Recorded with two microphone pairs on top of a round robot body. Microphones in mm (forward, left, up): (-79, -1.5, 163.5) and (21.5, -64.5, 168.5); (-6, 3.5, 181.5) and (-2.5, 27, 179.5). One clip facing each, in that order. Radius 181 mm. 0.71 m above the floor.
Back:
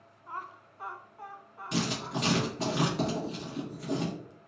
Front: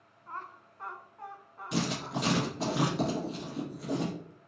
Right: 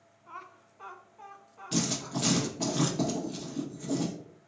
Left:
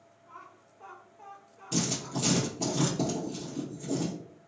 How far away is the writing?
About 1.4 m.